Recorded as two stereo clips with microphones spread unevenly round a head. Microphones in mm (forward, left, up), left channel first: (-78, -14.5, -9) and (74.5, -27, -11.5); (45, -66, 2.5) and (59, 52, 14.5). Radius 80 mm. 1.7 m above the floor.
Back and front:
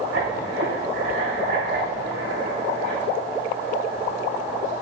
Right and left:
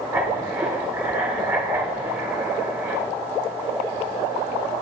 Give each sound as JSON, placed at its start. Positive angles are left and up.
{"t": 0.1, "sound": "writing", "azimuth_deg": 10, "distance_m": 4.5}